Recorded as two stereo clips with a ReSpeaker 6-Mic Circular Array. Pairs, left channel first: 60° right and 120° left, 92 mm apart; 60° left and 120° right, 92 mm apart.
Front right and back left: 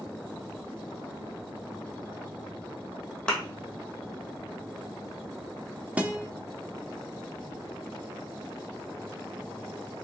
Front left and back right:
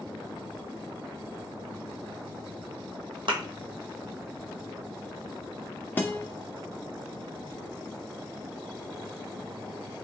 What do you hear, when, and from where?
3.3 s a thud: 135° right, 1.4 m
6.0 s a guitar: 70° left, 0.5 m